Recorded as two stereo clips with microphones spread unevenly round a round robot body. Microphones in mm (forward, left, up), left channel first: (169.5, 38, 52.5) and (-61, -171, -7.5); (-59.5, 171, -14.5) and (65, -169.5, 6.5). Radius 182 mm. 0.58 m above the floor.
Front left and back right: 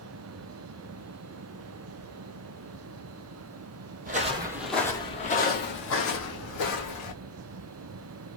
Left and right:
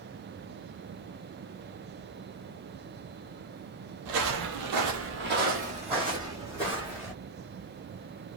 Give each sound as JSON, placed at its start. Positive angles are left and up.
{"t": 4.0, "sound": "footsteps", "azimuth_deg": -70, "distance_m": 0.9}